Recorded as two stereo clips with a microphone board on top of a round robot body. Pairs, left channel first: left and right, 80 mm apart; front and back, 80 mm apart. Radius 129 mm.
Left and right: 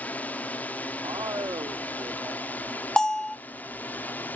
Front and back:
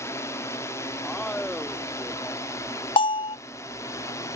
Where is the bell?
10° left.